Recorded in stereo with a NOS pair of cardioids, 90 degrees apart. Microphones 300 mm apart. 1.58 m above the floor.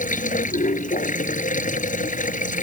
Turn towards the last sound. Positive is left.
turn(degrees=25)